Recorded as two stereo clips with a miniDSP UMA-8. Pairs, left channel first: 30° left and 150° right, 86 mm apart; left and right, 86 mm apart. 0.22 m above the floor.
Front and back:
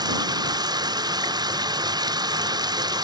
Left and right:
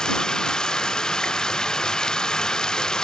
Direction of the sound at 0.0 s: 170° left.